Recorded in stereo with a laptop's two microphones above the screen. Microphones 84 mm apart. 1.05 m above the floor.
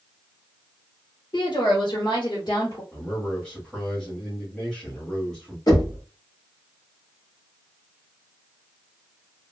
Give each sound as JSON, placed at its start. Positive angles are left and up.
{"t": 1.3, "sound": "a woman speaking", "side_deg": 65, "distance_m": 1.3}
{"t": 2.9, "sound": "a man speaking", "side_deg": 5, "distance_m": 1.8}
{"t": 5.7, "sound": "knocking", "side_deg": 45, "distance_m": 1.8}